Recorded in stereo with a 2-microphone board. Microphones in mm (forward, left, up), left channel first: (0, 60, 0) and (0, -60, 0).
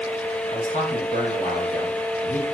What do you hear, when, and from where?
0.5 s a man speaking: 85° left, 10 m